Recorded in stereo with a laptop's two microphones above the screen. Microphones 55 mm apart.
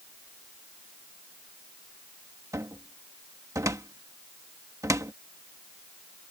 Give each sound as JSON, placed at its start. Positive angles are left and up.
{"t": 2.5, "sound": "a cupboard door", "side_deg": -80}